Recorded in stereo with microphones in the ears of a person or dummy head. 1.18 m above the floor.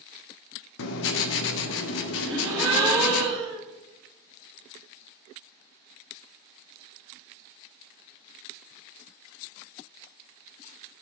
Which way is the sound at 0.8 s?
70° left (ahead or behind).